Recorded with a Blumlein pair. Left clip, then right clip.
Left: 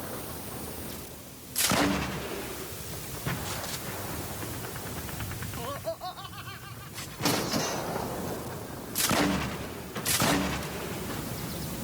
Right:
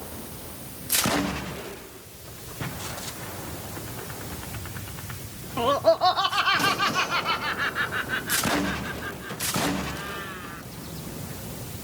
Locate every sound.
5.6 s laughter: 55° right; by 10.6 s 35° right